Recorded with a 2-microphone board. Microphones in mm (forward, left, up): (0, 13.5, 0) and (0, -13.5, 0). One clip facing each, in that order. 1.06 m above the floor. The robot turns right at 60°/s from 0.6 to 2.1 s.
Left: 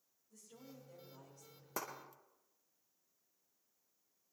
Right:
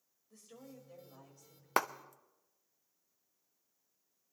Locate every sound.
0.3 s a woman speaking: 50° right, 5.5 m; by 1.7 s 10° left, 5.5 m
1.8 s a clap: 75° right (ahead or behind), 0.7 m; by 1.9 s 80° right, 0.7 m